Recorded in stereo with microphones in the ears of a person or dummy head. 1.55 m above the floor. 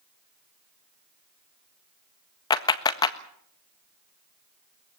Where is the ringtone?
No ringtone in this recording.